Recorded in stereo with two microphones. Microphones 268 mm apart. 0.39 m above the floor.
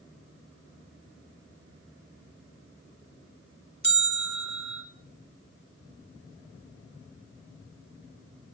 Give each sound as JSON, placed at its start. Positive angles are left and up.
{"t": 3.8, "sound": "a bell", "side_deg": -80, "distance_m": 1.0}